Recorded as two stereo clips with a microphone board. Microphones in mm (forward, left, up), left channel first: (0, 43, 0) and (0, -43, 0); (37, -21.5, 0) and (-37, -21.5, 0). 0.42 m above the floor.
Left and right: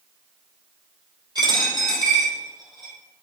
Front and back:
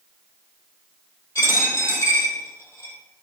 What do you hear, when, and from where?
1.4 s a dropped coin: 55° right, 2.5 m